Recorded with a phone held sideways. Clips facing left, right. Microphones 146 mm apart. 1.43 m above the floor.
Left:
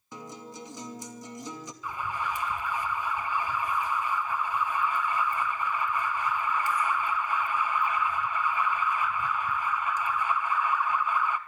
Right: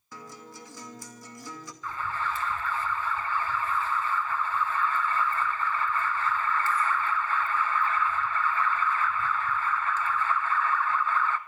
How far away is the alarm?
About 1.5 m.